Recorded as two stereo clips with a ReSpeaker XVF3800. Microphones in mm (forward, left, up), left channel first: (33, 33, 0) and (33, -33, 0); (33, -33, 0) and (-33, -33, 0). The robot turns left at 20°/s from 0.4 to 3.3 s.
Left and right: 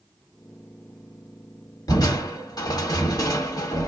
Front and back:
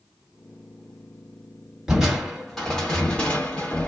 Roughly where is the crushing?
Left.